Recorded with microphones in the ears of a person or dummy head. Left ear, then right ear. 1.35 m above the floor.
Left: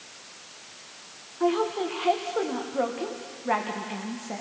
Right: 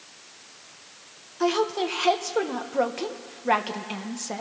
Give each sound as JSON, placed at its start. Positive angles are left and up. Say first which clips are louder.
{"t": 1.4, "sound": "a woman speaking", "louder": "right 1 dB", "side_deg": -85, "distance_m": 1.1}